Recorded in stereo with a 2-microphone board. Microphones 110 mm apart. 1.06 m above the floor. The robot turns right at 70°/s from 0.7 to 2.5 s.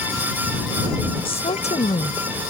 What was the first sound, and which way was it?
A woman speaking, 55° left.